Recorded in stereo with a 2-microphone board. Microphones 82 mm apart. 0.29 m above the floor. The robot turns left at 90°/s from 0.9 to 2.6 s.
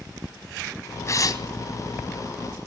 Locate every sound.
1.1 s tearing paper: 130° left, 2.5 m; by 1.4 s 95° left, 2.5 m